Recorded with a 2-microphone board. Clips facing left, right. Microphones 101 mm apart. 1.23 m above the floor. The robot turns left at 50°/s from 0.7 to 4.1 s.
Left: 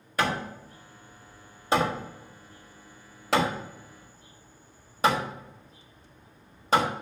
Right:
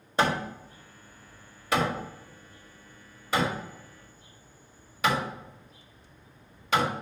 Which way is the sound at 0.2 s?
25° right (ahead or behind).